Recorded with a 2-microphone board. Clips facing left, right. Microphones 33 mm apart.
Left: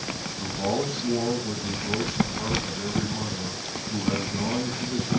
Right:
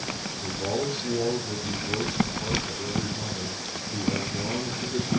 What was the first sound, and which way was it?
A man speaking, 55° left (ahead or behind).